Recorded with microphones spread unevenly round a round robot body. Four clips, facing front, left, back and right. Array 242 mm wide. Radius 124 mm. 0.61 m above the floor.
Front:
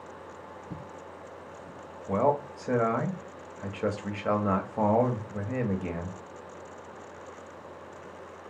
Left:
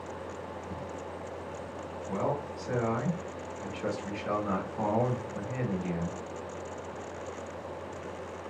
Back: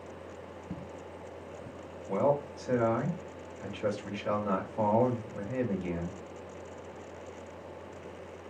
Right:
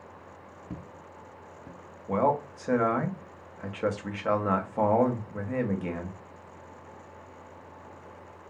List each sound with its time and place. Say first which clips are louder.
0.7 s footsteps: left 5 dB, back 1 dB; 95° right, 0.8 m; by 1.8 s 155° right, 1.2 m
2.1 s a man speaking: right 7 dB, front 2 dB; 40° right, 0.9 m